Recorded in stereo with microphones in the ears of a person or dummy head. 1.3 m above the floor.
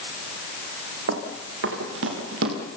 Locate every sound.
1.1 s running footsteps: 80° right, 6.5 m